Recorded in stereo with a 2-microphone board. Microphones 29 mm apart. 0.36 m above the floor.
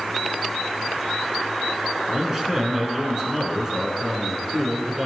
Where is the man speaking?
20° right (ahead or behind), 4.5 m.